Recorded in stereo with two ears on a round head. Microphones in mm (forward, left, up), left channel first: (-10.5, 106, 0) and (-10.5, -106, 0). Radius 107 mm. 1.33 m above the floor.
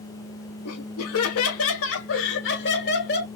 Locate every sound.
0.7 s laughter: 80° left, 2 m; by 3.3 s 45° left (ahead or behind), 2.5 m